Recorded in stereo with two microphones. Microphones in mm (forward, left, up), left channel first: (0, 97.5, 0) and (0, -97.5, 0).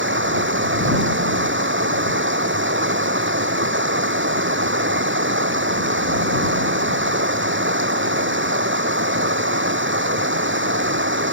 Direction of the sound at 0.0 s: 85° right.